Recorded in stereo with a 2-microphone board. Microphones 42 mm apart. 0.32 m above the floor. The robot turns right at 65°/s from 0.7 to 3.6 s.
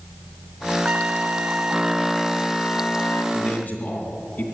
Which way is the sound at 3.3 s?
20° left (ahead or behind).